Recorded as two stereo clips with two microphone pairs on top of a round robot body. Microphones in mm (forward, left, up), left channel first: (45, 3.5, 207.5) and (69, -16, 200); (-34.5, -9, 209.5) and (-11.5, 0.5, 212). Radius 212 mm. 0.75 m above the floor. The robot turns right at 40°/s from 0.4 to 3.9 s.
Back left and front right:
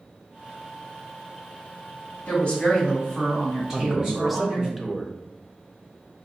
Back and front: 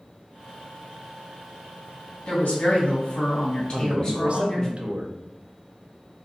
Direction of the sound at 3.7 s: 20° left.